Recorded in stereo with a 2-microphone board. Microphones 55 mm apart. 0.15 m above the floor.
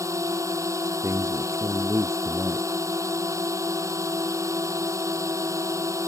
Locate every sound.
0.0 s a drone: 70° right (ahead or behind)
1.0 s a man speaking: 65° right (ahead or behind)